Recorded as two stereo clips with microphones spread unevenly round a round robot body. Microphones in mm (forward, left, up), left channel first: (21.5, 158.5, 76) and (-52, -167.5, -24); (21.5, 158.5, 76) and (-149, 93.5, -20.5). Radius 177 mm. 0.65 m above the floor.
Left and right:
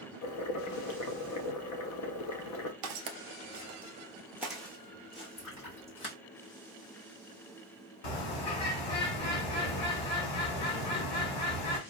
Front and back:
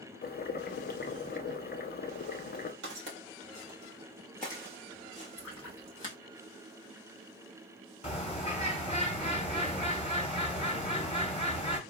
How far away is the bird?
About 1.2 m.